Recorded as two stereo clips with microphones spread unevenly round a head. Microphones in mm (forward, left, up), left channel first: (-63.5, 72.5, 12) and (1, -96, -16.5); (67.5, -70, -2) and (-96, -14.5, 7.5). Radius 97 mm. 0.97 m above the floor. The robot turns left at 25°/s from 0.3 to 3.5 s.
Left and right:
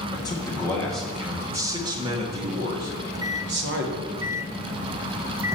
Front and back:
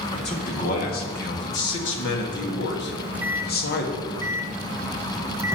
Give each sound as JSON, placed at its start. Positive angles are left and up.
{"t": 0.1, "sound": "a man speaking", "azimuth_deg": 35, "distance_m": 1.6}
{"t": 2.9, "sound": "a microwave", "azimuth_deg": -110, "distance_m": 0.5}